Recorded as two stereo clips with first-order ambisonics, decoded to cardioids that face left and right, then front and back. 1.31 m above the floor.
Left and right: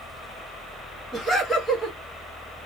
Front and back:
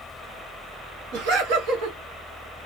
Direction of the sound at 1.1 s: 170° left.